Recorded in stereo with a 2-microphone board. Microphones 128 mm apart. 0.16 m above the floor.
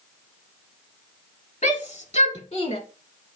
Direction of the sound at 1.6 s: 65° left (ahead or behind).